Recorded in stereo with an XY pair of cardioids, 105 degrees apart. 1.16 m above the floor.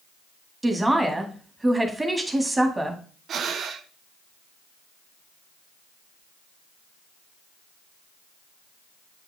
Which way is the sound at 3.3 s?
60° right.